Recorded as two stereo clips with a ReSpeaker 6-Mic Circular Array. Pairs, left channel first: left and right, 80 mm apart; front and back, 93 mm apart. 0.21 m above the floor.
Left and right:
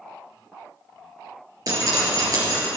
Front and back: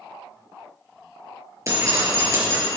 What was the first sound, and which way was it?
Dripping, 130° right.